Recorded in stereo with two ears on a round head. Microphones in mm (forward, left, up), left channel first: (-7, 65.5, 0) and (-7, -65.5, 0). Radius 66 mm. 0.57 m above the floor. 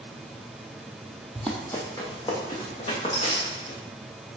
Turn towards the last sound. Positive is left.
turn(degrees=45)  # may be behind; listen again after turning